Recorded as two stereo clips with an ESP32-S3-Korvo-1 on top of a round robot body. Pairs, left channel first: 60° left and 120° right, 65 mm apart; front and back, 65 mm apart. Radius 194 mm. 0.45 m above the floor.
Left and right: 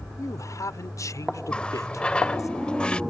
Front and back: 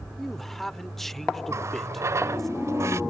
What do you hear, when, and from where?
0.2 s a man speaking: 85° left
1.5 s a running tap: 135° left